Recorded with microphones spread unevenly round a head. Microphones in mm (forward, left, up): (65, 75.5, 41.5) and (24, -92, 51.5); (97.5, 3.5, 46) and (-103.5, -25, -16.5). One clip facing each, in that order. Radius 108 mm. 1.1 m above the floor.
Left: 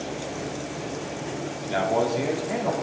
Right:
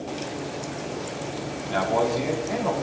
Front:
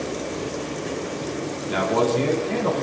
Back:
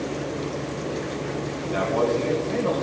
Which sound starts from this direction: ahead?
A man speaking, at 1.7 s.